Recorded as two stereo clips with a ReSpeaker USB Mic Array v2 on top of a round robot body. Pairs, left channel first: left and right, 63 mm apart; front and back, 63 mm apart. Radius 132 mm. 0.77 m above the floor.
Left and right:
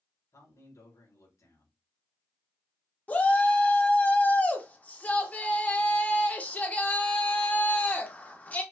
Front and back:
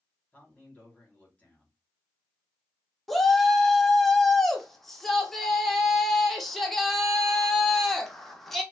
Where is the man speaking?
70° left, 3 m.